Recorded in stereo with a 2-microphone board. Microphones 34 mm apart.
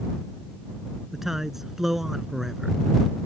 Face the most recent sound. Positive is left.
turn(degrees=-10)  # may be behind; listen again after turning